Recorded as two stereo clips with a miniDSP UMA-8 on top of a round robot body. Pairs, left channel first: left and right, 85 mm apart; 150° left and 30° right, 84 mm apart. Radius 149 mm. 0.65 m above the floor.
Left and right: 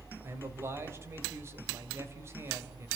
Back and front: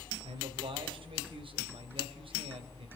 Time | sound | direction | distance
0.2 | a man speaking | 30° right | 3 m